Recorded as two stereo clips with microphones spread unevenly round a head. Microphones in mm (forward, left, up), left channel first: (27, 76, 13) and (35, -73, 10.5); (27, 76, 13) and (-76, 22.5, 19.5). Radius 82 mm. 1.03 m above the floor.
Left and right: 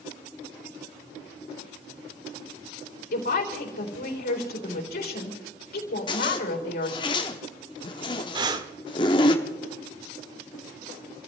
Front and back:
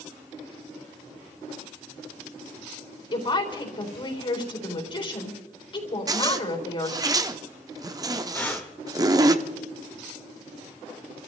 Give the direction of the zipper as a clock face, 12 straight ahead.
7 o'clock.